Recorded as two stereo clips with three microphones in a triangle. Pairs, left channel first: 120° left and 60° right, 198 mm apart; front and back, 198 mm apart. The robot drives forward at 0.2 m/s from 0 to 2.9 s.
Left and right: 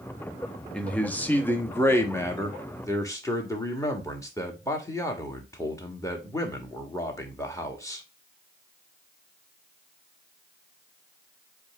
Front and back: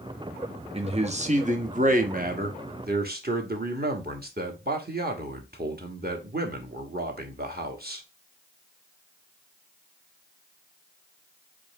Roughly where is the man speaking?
Behind.